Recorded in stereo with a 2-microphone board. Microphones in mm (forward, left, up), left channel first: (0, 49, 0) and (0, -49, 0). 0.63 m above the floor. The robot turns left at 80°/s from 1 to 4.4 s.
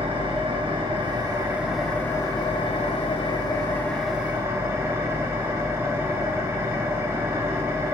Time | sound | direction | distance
0.0 | an engine running | 115° right | 0.7 m